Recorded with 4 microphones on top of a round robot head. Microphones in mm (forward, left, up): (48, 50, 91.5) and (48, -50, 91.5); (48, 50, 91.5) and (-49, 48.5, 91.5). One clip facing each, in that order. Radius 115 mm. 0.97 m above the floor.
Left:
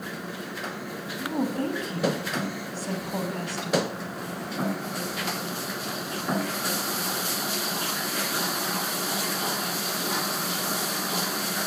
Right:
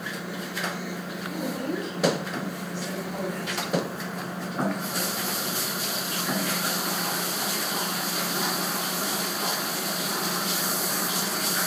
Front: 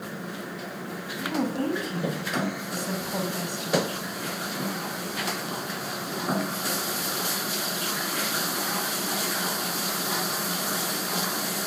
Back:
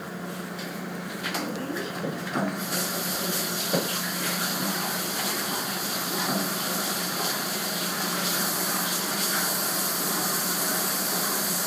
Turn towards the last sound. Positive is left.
turn(degrees=35)